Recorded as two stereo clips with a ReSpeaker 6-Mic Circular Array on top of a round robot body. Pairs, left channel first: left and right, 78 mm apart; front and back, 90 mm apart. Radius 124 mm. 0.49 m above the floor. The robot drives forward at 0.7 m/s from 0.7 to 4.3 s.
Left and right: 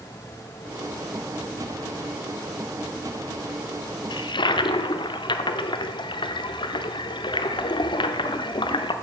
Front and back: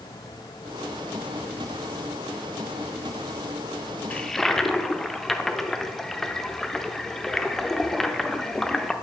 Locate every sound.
4.1 s a toilet flushing: 75° left, 0.7 m; by 8.9 s 85° left, 0.7 m